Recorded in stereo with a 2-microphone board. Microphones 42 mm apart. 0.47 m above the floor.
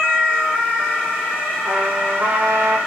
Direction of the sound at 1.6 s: 55° right (ahead or behind).